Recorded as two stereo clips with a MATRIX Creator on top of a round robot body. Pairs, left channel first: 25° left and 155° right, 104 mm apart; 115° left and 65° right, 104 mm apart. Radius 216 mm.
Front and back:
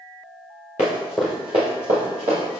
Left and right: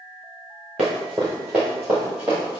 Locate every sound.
0.8 s running footsteps: 30° left, 0.8 m; by 2.6 s 150° right, 1.7 m